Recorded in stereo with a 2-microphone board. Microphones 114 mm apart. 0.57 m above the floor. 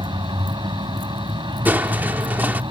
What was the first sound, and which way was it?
A vehicle, 45° right (ahead or behind).